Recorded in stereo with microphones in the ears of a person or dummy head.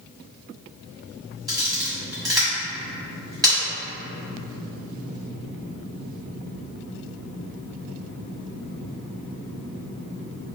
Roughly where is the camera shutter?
Centre.